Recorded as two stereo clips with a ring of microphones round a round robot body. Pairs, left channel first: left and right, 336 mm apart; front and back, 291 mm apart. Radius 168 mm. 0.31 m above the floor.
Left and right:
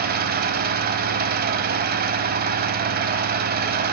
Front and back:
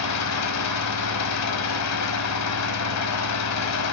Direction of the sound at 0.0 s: 30° right.